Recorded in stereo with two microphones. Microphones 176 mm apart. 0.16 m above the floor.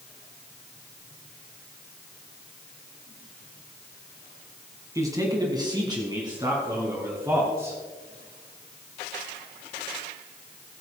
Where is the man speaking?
15° right (ahead or behind), 1.6 m; by 7.8 s 20° right (ahead or behind), 3.5 m.